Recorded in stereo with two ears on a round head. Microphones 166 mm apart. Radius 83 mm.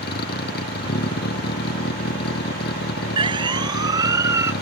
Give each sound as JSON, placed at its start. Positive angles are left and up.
{"t": 0.0, "sound": "a vehicle", "side_deg": 55}
{"t": 3.2, "sound": "a siren", "side_deg": -30}